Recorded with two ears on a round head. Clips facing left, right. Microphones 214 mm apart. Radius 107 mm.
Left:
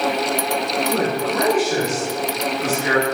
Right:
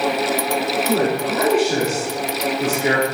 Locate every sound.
0.9 s a man speaking: 20° right (ahead or behind), 3 m